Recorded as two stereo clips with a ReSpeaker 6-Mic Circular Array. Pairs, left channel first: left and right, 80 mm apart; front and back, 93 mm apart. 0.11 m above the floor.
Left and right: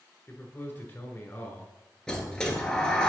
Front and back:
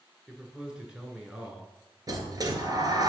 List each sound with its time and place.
0.3 s a man speaking: 115° left, 1.3 m
2.1 s a sliding door: 165° left, 1.0 m